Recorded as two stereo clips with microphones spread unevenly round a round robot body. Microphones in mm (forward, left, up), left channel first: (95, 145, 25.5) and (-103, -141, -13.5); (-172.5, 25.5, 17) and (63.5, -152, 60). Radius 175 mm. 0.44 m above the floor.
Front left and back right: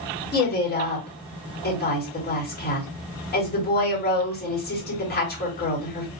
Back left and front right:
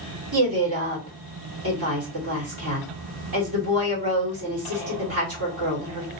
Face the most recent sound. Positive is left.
turn(degrees=-5)